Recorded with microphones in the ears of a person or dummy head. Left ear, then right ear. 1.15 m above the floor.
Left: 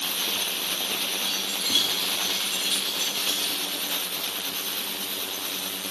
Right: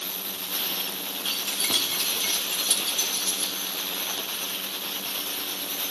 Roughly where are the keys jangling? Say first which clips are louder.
Even; right.